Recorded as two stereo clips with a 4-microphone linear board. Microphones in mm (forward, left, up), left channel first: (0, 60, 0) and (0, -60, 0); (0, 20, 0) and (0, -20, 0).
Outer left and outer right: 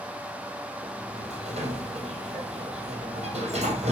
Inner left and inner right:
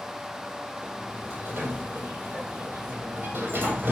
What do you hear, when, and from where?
0.8 s a sliding door: 70° right (ahead or behind), 2.5 m